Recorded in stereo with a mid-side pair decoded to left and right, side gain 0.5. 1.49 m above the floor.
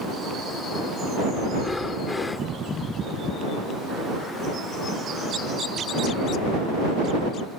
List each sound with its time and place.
1.5 s breathing: 20° left